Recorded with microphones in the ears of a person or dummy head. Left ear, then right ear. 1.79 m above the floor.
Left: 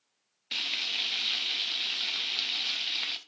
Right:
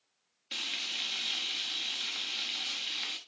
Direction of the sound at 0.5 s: 20° left (ahead or behind).